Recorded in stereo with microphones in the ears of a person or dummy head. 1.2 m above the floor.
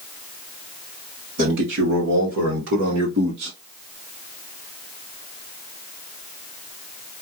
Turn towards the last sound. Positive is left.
turn(degrees=-65)  # may be behind; listen again after turning